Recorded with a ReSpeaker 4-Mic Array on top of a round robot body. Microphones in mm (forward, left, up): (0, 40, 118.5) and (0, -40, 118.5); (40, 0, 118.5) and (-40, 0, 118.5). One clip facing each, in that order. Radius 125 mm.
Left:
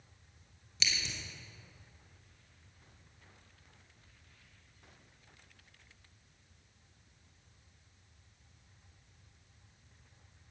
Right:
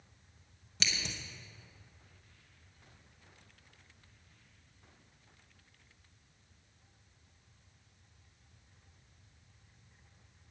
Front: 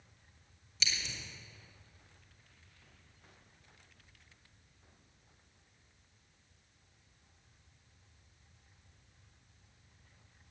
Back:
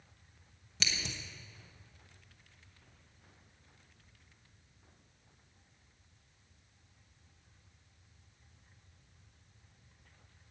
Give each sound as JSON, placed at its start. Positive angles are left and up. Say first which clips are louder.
{"t": 0.8, "sound": "scissors", "louder": "even, back 1 dB", "azimuth_deg": -140, "distance_m": 0.8}